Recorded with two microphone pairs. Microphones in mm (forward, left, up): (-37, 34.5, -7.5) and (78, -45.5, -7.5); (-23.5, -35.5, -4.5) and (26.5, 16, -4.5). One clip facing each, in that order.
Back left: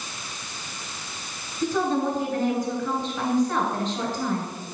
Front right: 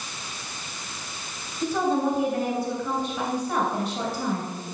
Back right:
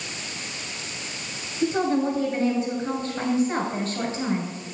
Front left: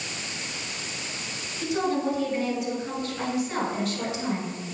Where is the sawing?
No sawing in this recording.